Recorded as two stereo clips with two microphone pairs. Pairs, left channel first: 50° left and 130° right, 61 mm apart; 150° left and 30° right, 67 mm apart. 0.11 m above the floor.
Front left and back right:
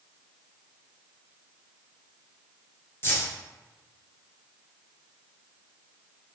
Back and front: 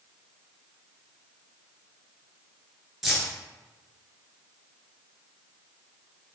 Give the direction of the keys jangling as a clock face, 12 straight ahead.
10 o'clock.